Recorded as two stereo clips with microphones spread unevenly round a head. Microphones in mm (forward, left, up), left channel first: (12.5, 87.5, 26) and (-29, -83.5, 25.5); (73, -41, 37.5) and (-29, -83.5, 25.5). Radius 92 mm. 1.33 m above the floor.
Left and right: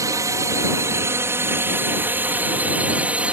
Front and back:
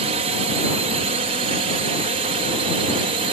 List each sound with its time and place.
0.0 s a drone: 175° right; by 3.3 s 175° left